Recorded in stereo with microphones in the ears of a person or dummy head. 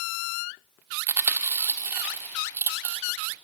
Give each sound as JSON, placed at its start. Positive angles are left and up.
{"t": 1.1, "sound": "chewing", "side_deg": -15, "distance_m": 1.1}